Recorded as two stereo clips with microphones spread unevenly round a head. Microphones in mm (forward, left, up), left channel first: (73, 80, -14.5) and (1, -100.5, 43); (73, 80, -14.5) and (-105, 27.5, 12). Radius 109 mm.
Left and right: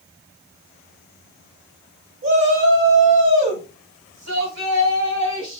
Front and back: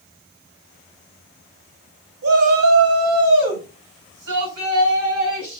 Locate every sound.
2.2 s a shout: 150° right, 3.5 m